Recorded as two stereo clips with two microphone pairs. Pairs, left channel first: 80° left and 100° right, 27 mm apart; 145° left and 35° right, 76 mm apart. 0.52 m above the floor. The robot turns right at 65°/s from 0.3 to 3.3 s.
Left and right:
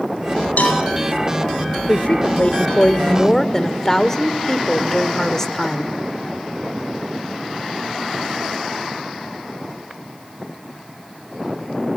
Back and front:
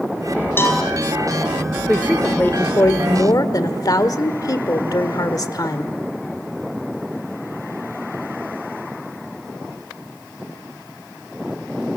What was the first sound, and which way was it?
A cowbell, 90° left.